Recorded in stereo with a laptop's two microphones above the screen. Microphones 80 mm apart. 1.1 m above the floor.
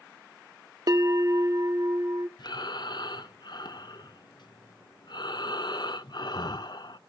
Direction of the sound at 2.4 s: 65° left (ahead or behind).